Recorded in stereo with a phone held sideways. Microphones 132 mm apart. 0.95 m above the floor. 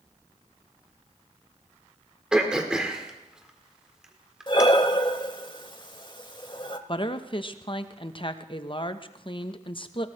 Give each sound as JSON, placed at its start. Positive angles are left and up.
{"t": 2.3, "sound": "throat clearing", "side_deg": -5, "distance_m": 1.7}
{"t": 4.5, "sound": "breathing", "side_deg": 35, "distance_m": 0.8}
{"t": 6.9, "sound": "a woman speaking", "side_deg": 40, "distance_m": 0.8}